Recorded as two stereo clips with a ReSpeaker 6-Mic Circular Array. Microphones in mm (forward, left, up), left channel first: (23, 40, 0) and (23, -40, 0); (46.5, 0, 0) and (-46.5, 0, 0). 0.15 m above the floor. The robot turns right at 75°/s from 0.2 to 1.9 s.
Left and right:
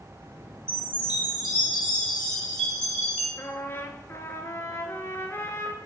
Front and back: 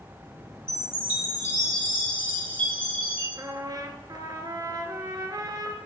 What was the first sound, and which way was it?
A chime, 80° left.